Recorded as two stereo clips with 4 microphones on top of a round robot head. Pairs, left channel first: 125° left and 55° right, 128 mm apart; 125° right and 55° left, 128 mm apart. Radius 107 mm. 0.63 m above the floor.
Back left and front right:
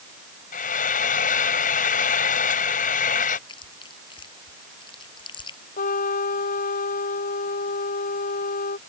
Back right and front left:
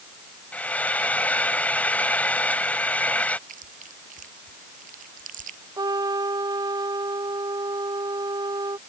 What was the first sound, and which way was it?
Frying, 155° left.